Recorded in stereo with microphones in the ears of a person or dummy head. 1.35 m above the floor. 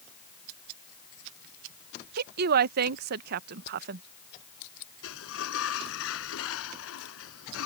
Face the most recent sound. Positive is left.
turn(degrees=85)